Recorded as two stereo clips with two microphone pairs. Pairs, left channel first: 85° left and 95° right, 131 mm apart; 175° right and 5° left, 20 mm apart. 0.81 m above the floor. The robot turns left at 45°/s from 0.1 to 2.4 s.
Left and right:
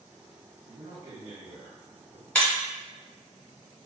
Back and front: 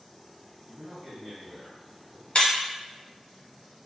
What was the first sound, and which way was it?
A man speaking, 35° right.